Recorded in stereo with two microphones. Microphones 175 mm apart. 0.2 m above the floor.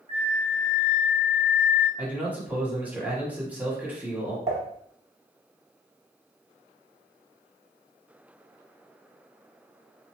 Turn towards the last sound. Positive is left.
turn(degrees=-35)  # may be behind; listen again after turning